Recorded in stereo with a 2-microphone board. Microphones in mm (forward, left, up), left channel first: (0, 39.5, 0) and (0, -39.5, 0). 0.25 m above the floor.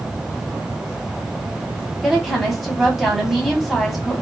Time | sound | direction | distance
2.0 | a woman speaking | centre (ahead or behind) | 1.5 m